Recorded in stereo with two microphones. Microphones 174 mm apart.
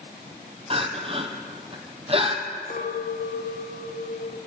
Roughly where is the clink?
Left.